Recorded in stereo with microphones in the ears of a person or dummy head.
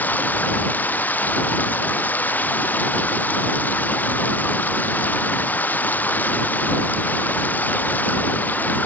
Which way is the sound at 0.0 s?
10° left (ahead or behind).